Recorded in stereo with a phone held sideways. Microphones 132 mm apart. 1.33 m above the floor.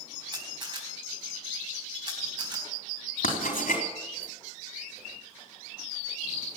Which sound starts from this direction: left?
Writing, at 3.2 s.